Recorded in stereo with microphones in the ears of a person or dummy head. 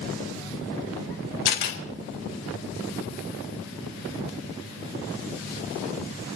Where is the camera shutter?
55° left (ahead or behind), 3.5 m.